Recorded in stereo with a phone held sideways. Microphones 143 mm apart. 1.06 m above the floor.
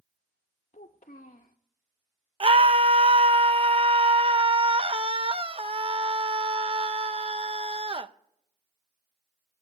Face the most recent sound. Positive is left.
turn(degrees=-40)  # may be behind; listen again after turning